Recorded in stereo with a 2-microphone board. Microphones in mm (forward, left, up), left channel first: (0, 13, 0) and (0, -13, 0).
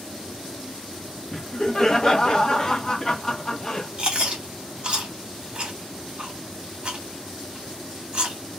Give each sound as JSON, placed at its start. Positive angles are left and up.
{"t": 1.3, "sound": "laughter", "side_deg": 25, "distance_m": 0.7}
{"t": 4.0, "sound": "chewing", "side_deg": -40, "distance_m": 1.1}